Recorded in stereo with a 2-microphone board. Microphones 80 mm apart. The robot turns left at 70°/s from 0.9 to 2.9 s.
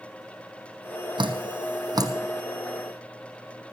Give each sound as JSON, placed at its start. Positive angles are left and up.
{"t": 1.2, "sound": "dripping", "side_deg": -70, "distance_m": 1.4}